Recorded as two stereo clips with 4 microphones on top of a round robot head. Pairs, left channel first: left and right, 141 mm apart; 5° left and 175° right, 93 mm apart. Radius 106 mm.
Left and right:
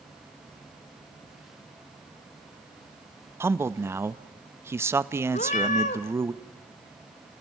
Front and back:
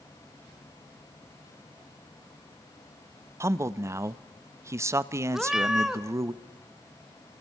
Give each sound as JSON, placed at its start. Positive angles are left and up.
{"t": 3.4, "sound": "a man speaking", "azimuth_deg": -150, "distance_m": 0.7}
{"t": 5.3, "sound": "a cat meowing", "azimuth_deg": 100, "distance_m": 0.8}